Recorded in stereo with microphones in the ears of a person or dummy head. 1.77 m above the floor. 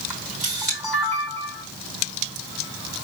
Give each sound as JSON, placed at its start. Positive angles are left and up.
{"t": 0.1, "sound": "a camera shutter", "side_deg": 5, "distance_m": 4.0}